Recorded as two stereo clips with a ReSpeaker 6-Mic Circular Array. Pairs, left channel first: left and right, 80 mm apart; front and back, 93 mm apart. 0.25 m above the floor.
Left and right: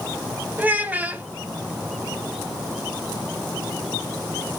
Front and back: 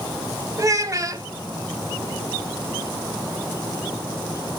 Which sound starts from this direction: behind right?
A child speaking, at 0.6 s.